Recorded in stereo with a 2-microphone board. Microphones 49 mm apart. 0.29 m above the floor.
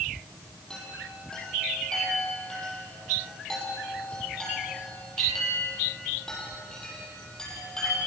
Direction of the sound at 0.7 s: 15° left (ahead or behind).